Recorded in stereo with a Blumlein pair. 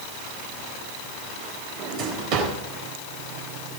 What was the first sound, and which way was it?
A drawer, 40° right.